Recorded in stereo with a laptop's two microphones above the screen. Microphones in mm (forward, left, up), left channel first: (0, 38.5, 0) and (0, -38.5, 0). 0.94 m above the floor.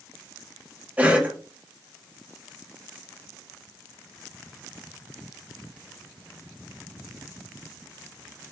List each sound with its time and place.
1.0 s a cough: 20° right (ahead or behind), 0.9 m